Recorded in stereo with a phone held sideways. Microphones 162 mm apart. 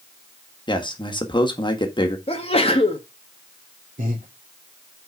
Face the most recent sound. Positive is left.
turn(degrees=-60)  # may be behind; listen again after turning